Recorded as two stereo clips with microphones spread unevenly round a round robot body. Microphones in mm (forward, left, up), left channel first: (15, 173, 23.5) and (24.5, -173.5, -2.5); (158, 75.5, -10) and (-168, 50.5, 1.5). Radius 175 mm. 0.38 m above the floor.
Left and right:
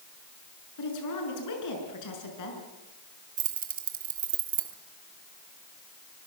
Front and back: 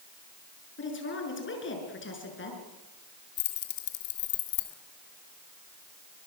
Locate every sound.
0.8 s a woman speaking: 55° left, 6 m
3.4 s keys jangling: 25° right, 2 m